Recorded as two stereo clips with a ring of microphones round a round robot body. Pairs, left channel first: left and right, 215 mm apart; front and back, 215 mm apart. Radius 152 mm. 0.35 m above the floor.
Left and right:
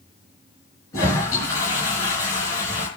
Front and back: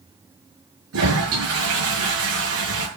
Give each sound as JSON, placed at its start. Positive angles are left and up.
{"t": 0.9, "sound": "a toilet flushing", "azimuth_deg": 170, "distance_m": 7.0}